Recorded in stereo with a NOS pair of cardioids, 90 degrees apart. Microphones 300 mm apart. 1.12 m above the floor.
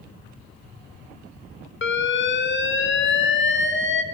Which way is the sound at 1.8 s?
40° left.